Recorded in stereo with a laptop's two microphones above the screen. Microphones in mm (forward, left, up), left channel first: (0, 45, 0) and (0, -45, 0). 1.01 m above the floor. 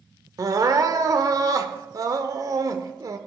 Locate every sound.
0.4 s crying: 45° right (ahead or behind), 1.0 m